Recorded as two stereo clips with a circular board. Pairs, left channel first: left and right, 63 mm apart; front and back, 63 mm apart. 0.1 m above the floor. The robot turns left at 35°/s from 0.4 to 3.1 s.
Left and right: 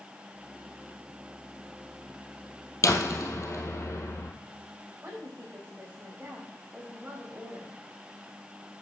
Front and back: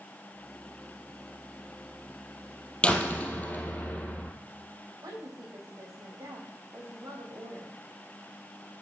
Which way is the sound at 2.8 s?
70° left.